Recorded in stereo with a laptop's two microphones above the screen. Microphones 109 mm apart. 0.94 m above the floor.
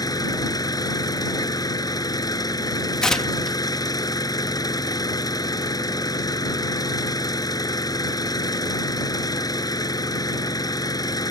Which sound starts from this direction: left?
An engine running, at 0.0 s.